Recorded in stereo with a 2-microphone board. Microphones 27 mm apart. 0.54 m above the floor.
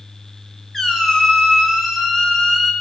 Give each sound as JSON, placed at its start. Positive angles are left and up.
{"t": 0.7, "sound": "a squeak", "side_deg": 15, "distance_m": 1.2}